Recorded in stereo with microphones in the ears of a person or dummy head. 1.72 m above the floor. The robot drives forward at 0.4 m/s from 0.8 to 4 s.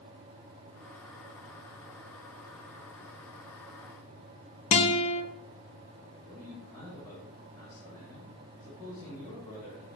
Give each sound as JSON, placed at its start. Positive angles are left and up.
{"t": 4.7, "sound": "a guitar", "side_deg": 40, "distance_m": 1.3}
{"t": 6.2, "sound": "a man speaking", "side_deg": 20, "distance_m": 3.0}